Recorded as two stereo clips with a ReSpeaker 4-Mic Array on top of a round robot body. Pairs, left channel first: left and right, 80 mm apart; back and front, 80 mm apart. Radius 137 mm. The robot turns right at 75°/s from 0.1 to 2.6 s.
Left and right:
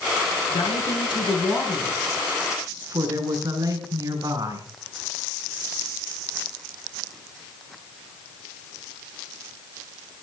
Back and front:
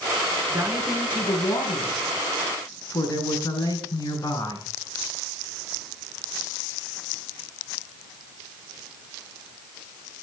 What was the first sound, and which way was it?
A woman speaking, 70° left.